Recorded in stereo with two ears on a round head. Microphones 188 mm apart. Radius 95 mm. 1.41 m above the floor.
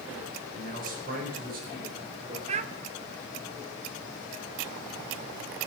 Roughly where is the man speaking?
Right.